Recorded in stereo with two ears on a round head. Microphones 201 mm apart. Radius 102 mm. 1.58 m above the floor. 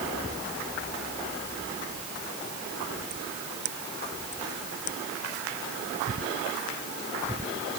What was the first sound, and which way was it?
Only background noise.